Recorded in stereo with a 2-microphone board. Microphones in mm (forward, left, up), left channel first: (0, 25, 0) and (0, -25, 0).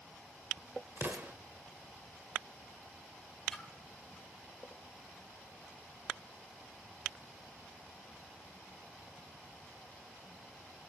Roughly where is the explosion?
Right.